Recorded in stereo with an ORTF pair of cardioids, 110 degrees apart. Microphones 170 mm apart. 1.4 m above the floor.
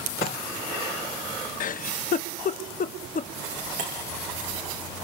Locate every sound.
0.2 s dishes clattering: 65° left, 5.5 m
1.6 s a giggle: 55° left, 0.8 m
3.8 s breaking glass: 50° right, 7 m